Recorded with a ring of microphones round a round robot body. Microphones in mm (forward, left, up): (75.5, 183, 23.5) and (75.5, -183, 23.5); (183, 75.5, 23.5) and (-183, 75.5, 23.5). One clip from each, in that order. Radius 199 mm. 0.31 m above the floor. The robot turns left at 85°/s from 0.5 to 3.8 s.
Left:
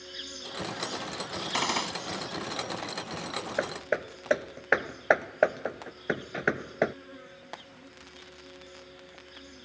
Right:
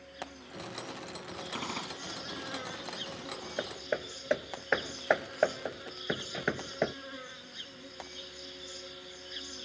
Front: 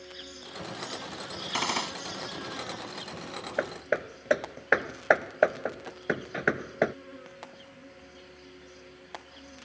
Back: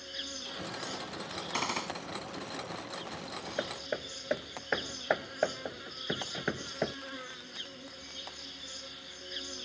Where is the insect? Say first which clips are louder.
Left 6 dB, back 4 dB; 130° left; by 9.7 s 150° right.